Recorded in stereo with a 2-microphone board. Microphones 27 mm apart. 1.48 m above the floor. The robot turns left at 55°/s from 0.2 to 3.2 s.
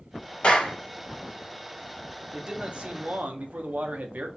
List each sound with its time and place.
0.4 s a clap: 40° left (ahead or behind), 1.5 m; by 0.8 s 55° left (ahead or behind), 1.5 m
2.3 s a man speaking: 20° right, 0.8 m; by 4.3 s 65° right, 0.8 m